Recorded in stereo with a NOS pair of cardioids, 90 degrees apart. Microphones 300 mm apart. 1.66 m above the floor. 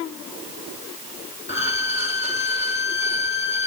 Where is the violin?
20° left, 2.5 m.